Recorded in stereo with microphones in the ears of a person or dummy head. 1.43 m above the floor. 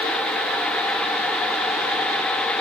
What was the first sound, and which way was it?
Only background noise.